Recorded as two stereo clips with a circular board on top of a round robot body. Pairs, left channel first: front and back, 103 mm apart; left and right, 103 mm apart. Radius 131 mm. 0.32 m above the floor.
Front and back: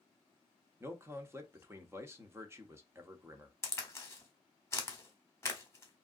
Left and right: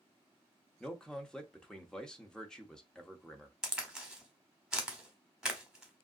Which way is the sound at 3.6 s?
15° right.